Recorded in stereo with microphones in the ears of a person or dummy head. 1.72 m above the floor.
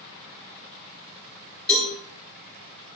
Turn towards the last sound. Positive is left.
turn(degrees=10)  # may be behind; listen again after turning